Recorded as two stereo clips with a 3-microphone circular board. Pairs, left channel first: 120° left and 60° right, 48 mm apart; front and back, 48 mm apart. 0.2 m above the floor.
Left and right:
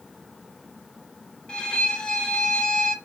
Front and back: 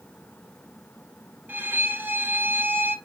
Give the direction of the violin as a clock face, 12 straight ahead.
6 o'clock.